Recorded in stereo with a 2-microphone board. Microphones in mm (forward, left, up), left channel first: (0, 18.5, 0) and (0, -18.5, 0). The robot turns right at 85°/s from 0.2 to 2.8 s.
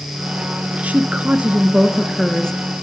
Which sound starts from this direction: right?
A woman speaking, at 0.8 s.